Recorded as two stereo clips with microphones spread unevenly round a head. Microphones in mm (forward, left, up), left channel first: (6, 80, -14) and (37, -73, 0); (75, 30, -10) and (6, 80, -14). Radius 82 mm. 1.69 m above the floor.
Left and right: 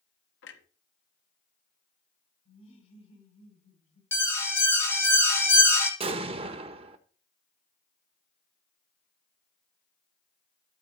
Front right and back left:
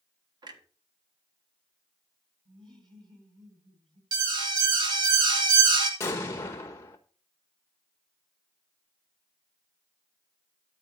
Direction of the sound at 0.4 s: 110° left.